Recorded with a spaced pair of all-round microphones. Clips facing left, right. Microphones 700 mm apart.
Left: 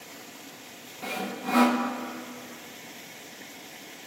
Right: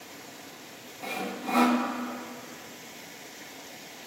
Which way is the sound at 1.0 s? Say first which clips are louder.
Left 1 dB; 50° left (ahead or behind).